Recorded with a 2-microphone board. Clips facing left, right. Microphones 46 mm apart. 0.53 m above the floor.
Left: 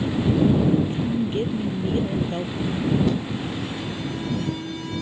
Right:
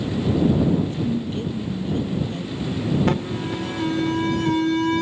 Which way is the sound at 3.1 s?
60° right (ahead or behind).